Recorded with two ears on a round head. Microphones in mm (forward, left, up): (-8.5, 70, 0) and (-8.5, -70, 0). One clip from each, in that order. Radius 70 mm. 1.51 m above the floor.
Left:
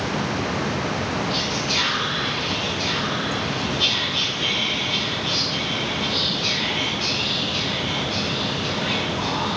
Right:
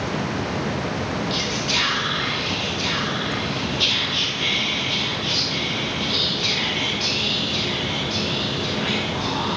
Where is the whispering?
25° right (ahead or behind), 1.1 m.